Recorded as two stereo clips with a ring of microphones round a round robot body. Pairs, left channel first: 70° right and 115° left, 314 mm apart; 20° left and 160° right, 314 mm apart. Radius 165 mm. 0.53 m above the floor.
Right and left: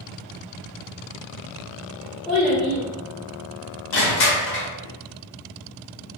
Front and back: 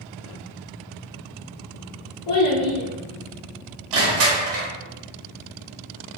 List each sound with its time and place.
2.3 s a child speaking: 20° left, 0.9 m
3.9 s crushing: 115° right, 1.0 m